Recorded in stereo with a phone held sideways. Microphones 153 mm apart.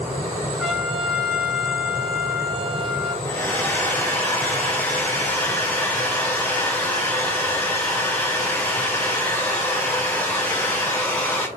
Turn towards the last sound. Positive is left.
turn(degrees=15)  # may be behind; listen again after turning